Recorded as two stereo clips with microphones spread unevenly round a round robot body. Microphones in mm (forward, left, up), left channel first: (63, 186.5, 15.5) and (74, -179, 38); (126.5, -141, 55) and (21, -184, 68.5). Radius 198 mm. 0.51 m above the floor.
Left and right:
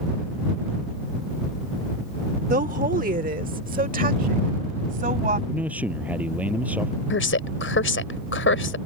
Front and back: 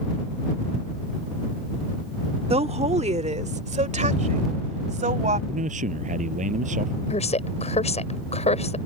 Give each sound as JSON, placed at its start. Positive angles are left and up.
{"t": 2.5, "sound": "a woman speaking", "azimuth_deg": -155}
{"t": 5.5, "sound": "a man speaking", "azimuth_deg": -175}
{"t": 7.1, "sound": "a woman speaking", "azimuth_deg": 35}